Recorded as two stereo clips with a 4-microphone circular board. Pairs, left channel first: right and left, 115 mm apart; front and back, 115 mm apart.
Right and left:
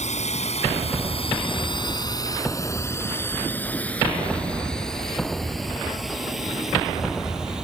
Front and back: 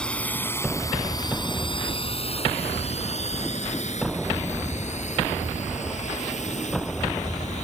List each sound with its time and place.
0.0 s a drone: 80° right; by 7.7 s 5° left